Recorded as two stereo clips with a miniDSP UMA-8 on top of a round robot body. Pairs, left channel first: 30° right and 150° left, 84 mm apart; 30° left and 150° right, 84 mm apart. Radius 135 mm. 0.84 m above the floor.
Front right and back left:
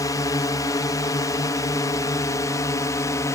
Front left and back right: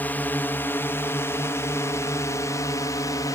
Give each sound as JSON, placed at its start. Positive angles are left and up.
{"t": 0.0, "sound": "a drone", "azimuth_deg": -30}